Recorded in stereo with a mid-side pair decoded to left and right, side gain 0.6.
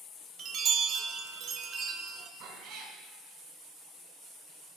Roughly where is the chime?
Ahead right.